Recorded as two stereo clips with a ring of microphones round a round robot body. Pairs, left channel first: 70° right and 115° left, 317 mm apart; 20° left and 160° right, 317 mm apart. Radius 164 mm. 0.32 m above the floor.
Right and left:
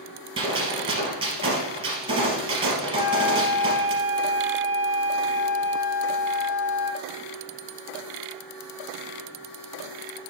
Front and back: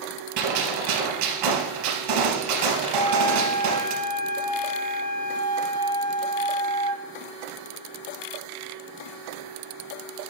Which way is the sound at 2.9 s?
50° right.